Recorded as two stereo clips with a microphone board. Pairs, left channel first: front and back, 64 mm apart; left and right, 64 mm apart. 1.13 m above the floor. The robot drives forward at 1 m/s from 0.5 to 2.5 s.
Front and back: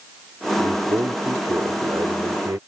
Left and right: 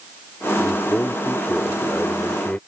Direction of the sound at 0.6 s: 150° left.